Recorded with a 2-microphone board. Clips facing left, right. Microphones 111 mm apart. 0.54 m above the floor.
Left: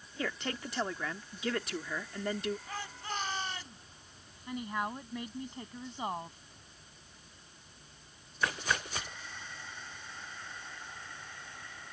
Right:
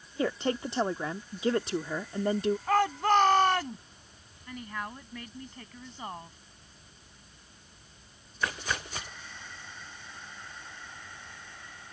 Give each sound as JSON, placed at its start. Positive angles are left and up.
{"t": 0.2, "sound": "a woman speaking", "side_deg": -30}
{"t": 2.7, "sound": "a shout", "side_deg": -70}
{"t": 4.5, "sound": "a woman speaking", "side_deg": 20}